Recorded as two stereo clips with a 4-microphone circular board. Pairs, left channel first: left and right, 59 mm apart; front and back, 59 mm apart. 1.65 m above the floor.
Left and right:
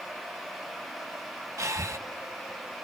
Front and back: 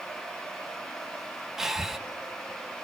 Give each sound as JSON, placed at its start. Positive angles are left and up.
{"t": 1.6, "sound": "breathing", "azimuth_deg": -95, "distance_m": 1.4}